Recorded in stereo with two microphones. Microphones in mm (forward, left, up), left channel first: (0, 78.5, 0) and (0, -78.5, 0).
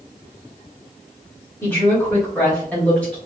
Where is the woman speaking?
15° left (ahead or behind), 1.5 m; by 3.2 s 5° left (ahead or behind), 2 m.